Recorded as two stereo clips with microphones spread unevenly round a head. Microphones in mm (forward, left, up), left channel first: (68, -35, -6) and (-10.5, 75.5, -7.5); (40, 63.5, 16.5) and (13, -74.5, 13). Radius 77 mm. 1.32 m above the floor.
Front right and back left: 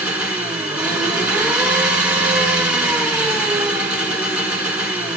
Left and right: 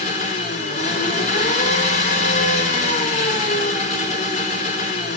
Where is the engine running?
45° left, 5 m.